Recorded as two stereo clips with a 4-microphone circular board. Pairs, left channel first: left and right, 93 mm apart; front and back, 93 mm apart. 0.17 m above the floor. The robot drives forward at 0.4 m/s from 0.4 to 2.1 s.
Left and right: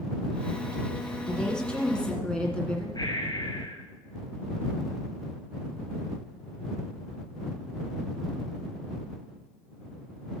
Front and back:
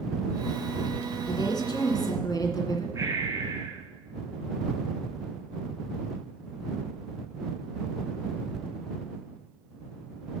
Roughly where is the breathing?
Behind left.